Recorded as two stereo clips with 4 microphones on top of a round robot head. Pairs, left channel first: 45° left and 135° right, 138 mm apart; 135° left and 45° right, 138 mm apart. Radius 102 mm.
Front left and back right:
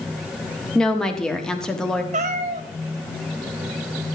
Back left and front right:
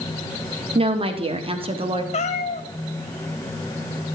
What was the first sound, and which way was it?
A woman speaking, 40° right.